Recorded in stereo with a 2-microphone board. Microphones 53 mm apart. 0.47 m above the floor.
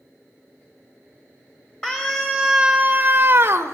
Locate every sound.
1.8 s a scream: 10° left (ahead or behind), 1.9 m; by 3.7 s 60° right (ahead or behind), 1.5 m